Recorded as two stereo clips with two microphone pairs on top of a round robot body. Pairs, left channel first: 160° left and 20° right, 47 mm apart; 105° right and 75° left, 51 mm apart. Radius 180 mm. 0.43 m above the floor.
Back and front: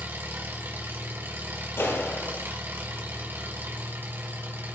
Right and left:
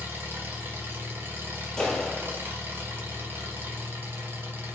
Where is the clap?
Straight behind, 6 m.